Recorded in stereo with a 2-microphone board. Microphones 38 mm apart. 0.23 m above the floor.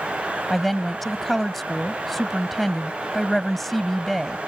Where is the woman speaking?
5° left (ahead or behind).